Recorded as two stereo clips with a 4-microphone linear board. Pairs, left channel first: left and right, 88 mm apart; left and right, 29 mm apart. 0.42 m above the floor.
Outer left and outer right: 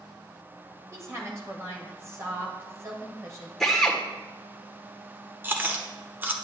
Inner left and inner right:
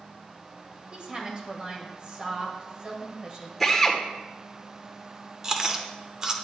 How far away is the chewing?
About 0.9 m.